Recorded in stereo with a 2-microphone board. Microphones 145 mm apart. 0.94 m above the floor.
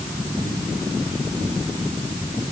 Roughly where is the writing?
No writing in this recording.